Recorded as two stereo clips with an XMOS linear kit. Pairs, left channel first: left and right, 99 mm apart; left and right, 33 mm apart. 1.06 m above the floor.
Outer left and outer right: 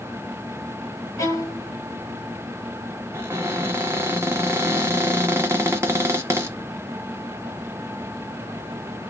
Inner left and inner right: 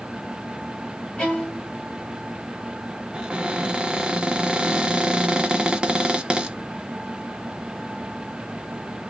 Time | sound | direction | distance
1.2 | a violin | 30° left (ahead or behind) | 1.1 m
3.1 | a cupboard door | 25° right (ahead or behind) | 0.6 m